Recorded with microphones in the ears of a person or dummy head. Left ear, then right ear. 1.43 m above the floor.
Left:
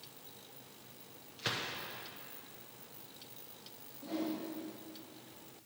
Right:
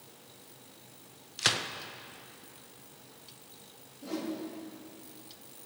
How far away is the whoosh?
About 2 m.